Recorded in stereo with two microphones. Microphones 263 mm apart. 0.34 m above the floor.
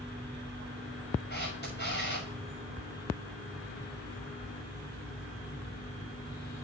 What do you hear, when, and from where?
1.3 s a camera shutter: 40° left (ahead or behind), 6.5 m